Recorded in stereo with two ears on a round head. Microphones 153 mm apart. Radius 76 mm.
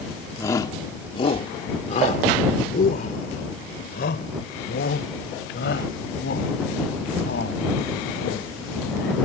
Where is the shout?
15° left (ahead or behind); by 9.2 s 70° left (ahead or behind).